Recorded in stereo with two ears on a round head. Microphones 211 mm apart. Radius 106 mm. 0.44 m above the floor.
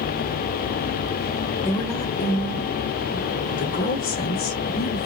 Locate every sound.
1.6 s a woman speaking: 15° left (ahead or behind), 1.8 m; by 5.1 s 45° left (ahead or behind), 1.5 m